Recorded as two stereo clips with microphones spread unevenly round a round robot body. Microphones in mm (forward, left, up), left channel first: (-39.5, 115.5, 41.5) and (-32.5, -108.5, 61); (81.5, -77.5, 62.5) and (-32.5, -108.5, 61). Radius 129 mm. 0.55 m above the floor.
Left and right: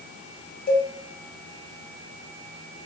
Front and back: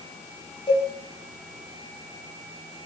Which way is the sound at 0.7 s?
65° left.